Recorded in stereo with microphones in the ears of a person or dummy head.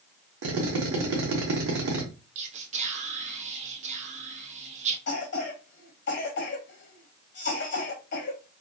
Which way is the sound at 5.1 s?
50° left (ahead or behind).